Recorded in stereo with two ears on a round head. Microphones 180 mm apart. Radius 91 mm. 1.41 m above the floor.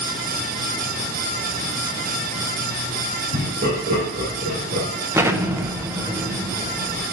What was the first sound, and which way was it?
Laughter, 45° right (ahead or behind).